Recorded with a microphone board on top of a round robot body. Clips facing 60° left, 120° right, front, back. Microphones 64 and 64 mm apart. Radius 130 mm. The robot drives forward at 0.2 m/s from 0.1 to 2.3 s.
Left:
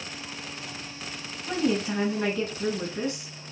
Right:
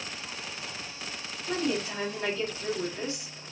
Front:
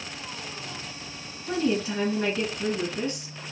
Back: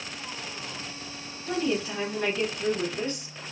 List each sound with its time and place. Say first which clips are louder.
1.5 s a woman speaking: left 4 dB, front 2 dB; 80° left, 3.5 m; by 3.3 s 85° left, 3.5 m